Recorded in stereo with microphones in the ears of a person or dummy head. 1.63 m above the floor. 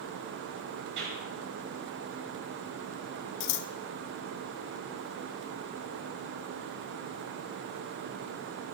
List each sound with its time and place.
1.0 s a clap: 60° right (ahead or behind), 7 m
3.4 s scissors: 70° left (ahead or behind), 1.0 m